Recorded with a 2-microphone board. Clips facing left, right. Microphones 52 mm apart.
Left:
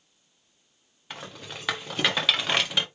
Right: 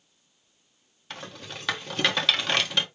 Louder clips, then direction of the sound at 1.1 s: Even; 10° left (ahead or behind).